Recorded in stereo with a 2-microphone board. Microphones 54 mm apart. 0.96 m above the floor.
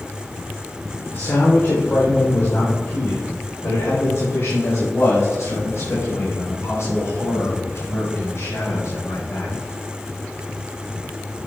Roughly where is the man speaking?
Left.